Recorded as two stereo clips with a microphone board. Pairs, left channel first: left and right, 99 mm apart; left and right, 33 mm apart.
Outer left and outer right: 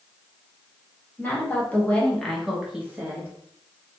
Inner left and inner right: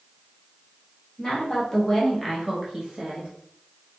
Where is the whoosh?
I don't hear a whoosh.